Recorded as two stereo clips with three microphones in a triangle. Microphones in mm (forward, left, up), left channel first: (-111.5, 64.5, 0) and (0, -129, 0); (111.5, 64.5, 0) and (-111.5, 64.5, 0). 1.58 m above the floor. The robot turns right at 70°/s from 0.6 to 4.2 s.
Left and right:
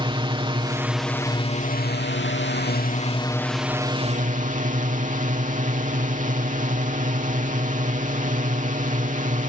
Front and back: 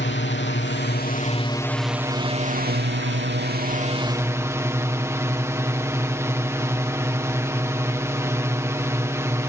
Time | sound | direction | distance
0.0 | a drone | straight ahead | ?